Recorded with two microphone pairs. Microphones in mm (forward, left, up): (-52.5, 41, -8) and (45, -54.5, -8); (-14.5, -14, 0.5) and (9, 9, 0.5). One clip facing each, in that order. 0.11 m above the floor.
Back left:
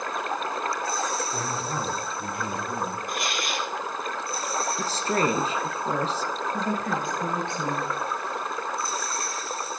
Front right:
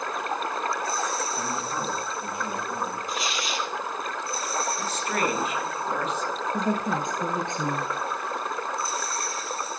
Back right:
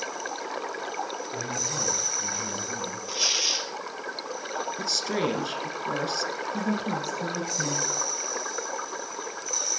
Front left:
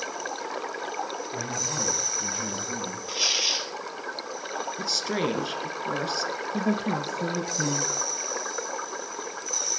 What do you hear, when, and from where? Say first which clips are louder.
1.3 s a man speaking: even, even; 105° left, 7.5 m; by 3.0 s 100° left, 8.5 m
3.1 s tearing paper: even, front left 1 dB; 120° left, 1.3 m
4.8 s a woman speaking: back left 2 dB, even; 125° left, 1.7 m
6.5 s a woman speaking: front right 3 dB, front left 3 dB; 20° left, 1.4 m